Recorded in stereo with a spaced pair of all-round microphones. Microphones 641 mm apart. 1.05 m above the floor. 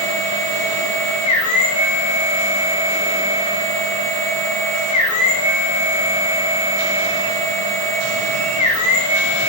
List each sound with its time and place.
0.0 s a machine running: 75° left (ahead or behind), 1.2 m